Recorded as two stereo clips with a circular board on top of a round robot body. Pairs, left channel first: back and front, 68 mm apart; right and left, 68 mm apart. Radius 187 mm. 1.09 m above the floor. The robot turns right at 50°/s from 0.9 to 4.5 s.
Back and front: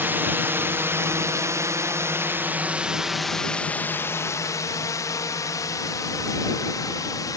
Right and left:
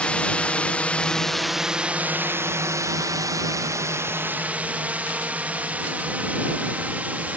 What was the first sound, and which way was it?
A drone, 30° right.